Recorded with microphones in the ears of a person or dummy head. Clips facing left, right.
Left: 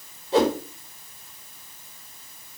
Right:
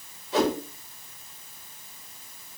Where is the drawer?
No drawer in this recording.